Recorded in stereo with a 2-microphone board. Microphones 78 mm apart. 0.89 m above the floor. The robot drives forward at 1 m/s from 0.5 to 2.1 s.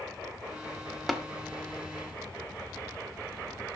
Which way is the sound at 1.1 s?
Centre (ahead or behind).